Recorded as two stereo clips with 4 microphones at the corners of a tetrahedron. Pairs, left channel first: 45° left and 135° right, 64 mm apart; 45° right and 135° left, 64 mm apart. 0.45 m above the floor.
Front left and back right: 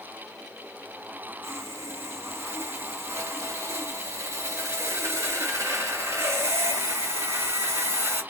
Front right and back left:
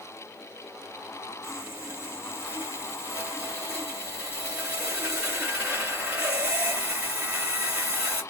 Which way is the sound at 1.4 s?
160° right.